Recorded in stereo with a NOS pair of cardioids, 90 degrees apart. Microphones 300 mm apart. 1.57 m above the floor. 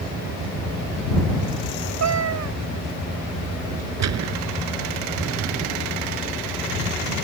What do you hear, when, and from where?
2.0 s a cat meowing: 65° right
4.0 s a gunshot: 65° right